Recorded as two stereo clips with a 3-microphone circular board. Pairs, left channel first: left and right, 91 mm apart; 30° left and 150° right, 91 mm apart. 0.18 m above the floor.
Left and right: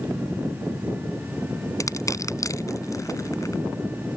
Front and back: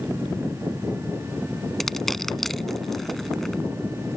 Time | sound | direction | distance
1.8 | crushing | 115° left | ?